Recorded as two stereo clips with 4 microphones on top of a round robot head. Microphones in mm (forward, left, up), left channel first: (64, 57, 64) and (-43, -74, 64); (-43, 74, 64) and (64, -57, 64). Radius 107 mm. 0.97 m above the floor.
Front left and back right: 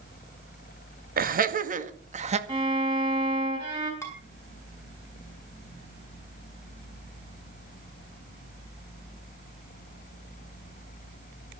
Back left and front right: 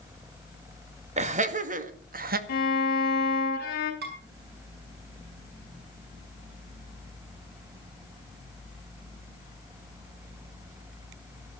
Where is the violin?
165° left, 4 m.